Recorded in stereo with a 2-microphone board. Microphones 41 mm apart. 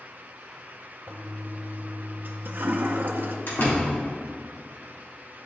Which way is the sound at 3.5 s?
60° left (ahead or behind).